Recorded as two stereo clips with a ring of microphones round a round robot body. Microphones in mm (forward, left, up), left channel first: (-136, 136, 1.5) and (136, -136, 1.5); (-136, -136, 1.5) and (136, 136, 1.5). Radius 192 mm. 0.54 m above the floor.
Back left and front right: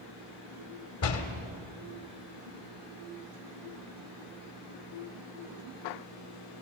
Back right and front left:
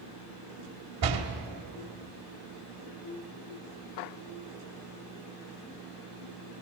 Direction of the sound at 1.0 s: 80° left.